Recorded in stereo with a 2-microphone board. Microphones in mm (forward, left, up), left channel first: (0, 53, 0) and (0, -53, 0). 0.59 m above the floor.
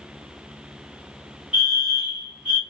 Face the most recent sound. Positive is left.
turn(degrees=-10)  # may be behind; listen again after turning